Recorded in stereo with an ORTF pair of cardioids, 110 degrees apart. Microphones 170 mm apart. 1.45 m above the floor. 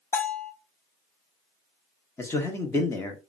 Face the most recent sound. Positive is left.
turn(degrees=15)